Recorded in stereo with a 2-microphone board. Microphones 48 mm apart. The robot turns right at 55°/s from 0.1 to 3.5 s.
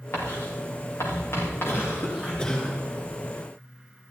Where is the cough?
115° left, 4 m; by 2.8 s 175° left, 4 m.